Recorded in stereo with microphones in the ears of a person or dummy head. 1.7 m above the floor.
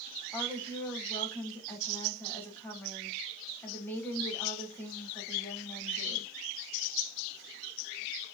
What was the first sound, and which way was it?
A woman speaking, 10° left (ahead or behind).